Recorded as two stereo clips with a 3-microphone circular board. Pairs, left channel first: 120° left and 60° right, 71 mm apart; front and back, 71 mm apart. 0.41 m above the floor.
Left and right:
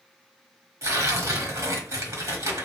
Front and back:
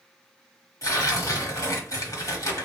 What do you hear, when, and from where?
0.8 s tearing paper: 25° right, 1.3 m